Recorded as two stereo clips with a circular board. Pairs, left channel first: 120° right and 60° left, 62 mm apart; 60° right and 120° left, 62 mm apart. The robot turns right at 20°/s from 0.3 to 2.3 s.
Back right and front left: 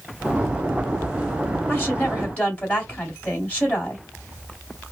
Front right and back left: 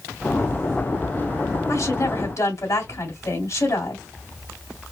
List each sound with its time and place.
1.7 s a woman speaking: 70° right, 2.5 m; by 4.0 s 55° right, 2.5 m